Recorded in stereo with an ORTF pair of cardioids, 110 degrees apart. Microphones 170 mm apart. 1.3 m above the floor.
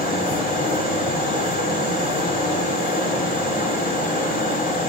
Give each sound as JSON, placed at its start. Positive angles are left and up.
{"t": 0.0, "sound": "a fan", "azimuth_deg": 55, "distance_m": 5.5}